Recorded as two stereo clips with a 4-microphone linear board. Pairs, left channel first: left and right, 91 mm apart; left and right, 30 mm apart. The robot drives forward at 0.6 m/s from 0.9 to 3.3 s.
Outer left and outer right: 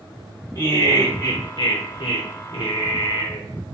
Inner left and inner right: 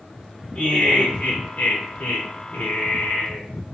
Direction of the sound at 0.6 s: 35° left (ahead or behind).